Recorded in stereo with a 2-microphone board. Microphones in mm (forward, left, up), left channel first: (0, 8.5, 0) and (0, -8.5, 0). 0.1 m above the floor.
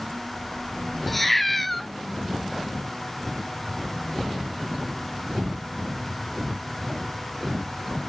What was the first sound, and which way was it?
A cat meowing, 5° left (ahead or behind).